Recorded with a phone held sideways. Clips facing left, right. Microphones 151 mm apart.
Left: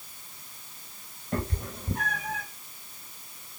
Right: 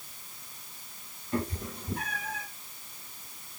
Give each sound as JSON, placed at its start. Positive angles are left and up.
{"t": 1.3, "sound": "a cat meowing", "side_deg": 55, "distance_m": 5.0}